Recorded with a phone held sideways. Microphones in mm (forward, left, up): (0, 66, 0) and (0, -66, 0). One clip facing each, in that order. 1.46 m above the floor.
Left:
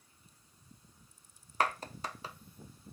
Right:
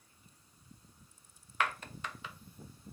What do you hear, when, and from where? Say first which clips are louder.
1.6 s a clap: left 3 dB; 35° left (ahead or behind), 0.9 m